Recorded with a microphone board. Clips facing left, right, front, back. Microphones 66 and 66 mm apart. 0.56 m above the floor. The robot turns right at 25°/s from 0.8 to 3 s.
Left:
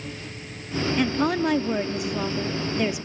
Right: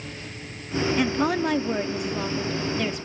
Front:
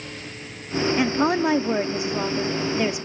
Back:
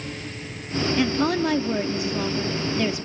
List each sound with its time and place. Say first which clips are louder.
1.0 s a woman speaking: left 2 dB, front 1 dB; 15° right, 0.7 m; by 3.1 s 40° left, 0.7 m